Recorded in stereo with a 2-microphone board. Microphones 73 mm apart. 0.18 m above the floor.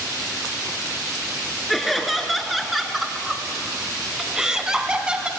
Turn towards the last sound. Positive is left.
turn(degrees=-15)  # may be behind; listen again after turning